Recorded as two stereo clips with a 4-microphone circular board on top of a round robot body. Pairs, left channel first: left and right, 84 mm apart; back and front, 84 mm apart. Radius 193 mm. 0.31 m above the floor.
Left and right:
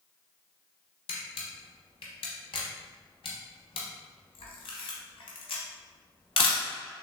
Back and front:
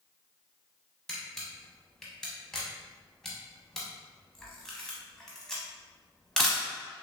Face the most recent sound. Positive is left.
turn(degrees=95)